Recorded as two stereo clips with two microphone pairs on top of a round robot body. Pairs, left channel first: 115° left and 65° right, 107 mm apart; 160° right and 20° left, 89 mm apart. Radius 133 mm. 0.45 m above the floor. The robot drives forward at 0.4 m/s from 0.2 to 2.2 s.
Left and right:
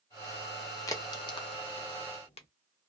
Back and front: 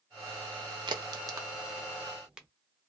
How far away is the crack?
About 0.8 m.